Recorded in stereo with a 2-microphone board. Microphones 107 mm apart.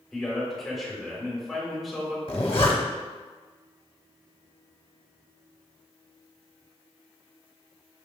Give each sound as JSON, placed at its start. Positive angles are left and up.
{"t": 0.1, "sound": "a man speaking", "side_deg": 0, "distance_m": 1.4}
{"t": 2.3, "sound": "a zipper", "side_deg": 60, "distance_m": 0.8}